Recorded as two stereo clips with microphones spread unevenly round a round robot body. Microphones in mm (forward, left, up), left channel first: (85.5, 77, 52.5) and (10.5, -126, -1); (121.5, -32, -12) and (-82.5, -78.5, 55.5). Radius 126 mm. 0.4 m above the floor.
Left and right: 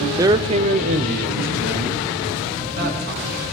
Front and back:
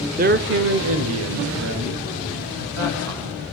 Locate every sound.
0.2 s a man speaking: 120° right, 0.8 m; by 3.4 s 155° right, 4 m